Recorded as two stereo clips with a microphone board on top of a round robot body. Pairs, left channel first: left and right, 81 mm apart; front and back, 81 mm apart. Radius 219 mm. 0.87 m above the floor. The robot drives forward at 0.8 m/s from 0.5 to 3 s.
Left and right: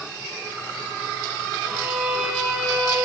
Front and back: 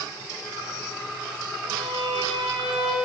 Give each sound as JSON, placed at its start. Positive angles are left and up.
{"t": 1.7, "sound": "a violin", "azimuth_deg": -170, "distance_m": 1.6}